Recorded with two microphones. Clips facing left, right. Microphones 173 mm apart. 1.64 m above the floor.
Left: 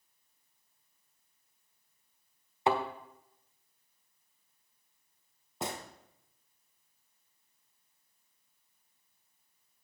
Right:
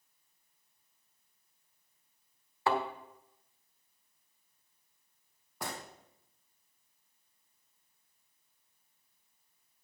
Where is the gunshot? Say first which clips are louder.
Left 3 dB; 25° left (ahead or behind), 1.2 m.